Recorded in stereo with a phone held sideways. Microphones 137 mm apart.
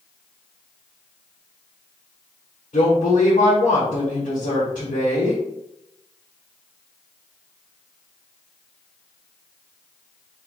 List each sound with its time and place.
2.7 s a woman speaking: 85° left, 1.3 m